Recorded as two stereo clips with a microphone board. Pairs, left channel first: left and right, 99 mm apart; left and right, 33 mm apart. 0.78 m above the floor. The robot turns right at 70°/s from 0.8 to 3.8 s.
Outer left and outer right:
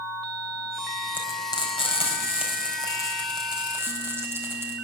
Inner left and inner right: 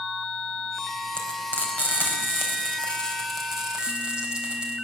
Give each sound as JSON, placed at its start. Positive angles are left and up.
{"t": 1.1, "sound": "frying", "side_deg": 20, "distance_m": 4.5}